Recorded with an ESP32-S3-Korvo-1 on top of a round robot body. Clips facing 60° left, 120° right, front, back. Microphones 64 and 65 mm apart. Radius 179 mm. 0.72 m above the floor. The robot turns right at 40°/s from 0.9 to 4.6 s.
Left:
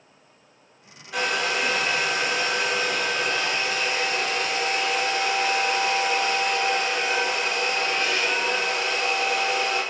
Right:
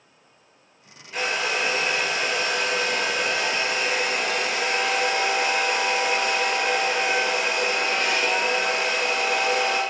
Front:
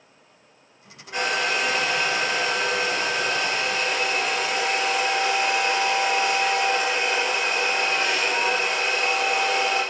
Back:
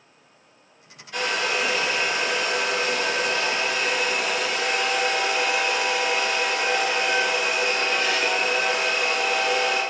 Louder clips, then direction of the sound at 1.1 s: Left 1 dB, front 1 dB; 75° left.